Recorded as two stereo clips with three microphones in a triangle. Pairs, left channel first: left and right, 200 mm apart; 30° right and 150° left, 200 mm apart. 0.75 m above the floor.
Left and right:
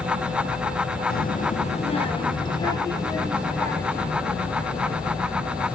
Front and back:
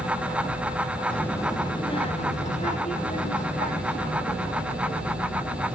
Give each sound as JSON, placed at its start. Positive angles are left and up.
{"t": 1.1, "sound": "a child speaking", "azimuth_deg": 55, "distance_m": 0.8}